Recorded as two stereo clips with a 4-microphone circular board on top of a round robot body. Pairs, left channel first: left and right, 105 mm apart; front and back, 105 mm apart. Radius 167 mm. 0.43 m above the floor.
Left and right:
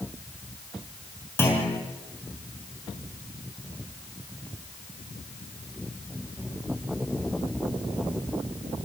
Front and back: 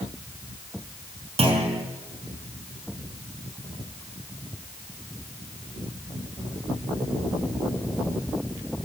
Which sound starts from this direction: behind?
A clunk, at 1.4 s.